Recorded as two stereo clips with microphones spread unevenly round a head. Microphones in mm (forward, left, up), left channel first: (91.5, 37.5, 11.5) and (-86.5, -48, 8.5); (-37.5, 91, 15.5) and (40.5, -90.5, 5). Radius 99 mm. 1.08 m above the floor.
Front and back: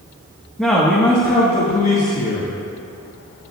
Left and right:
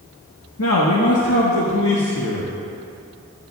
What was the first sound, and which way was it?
A man speaking, 115° left.